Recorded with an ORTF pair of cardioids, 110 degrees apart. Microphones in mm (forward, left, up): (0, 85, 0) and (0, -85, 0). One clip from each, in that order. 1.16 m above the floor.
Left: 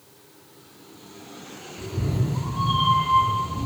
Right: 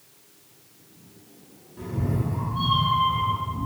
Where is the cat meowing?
40° right, 1.3 m; by 3.7 s 15° left, 0.6 m.